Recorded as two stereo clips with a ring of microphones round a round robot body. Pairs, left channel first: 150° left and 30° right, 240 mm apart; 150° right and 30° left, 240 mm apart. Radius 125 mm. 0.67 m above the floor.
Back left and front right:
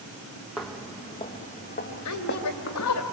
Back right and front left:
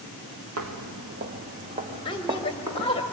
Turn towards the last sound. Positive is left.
turn(degrees=140)